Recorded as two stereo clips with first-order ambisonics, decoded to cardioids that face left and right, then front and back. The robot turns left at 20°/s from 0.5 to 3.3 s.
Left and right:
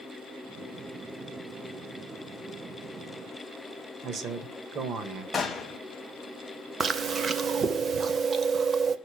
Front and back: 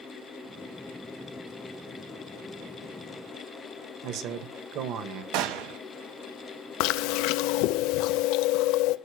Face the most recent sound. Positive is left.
turn(degrees=-20)